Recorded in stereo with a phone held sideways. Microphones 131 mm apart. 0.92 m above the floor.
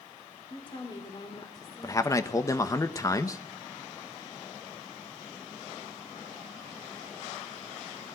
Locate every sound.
0.5 s a woman speaking: 35° left (ahead or behind), 2.5 m; by 2.8 s 20° left (ahead or behind), 3.5 m
1.8 s a man speaking: 25° left (ahead or behind), 1.0 m